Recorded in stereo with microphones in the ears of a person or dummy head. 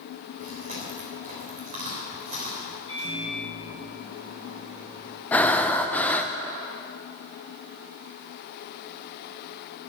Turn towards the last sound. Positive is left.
turn(degrees=0)  # may be behind; listen again after turning